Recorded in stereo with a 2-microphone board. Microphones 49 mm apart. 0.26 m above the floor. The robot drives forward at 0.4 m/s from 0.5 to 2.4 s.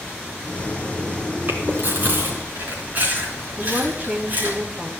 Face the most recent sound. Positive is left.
turn(degrees=-40)  # may be behind; listen again after turning